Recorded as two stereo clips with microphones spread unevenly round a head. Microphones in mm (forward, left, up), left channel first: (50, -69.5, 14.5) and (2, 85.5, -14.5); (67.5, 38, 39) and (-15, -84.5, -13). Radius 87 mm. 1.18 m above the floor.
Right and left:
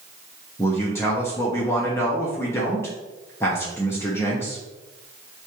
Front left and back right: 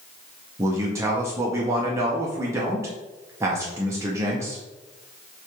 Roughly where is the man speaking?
Behind right.